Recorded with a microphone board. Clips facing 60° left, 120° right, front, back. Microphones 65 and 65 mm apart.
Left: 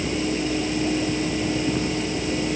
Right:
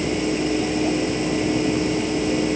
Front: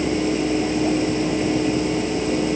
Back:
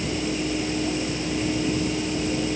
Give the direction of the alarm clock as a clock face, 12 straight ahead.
I don't hear an alarm clock.